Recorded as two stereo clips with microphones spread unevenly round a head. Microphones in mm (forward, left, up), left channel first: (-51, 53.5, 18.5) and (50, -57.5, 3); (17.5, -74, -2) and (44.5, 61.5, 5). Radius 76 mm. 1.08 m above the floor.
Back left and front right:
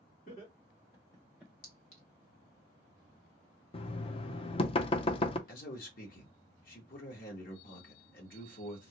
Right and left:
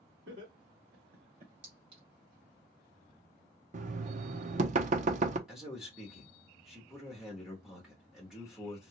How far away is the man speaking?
About 1.5 m.